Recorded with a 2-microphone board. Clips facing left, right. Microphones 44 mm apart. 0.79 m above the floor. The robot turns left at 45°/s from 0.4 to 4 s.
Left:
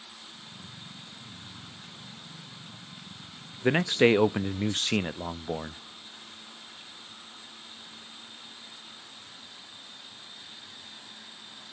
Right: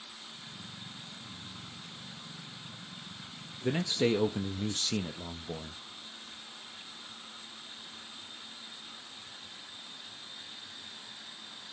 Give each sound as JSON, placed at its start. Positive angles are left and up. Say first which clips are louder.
{"t": 3.6, "sound": "a man speaking", "louder": "left 7 dB", "side_deg": 50, "distance_m": 0.5}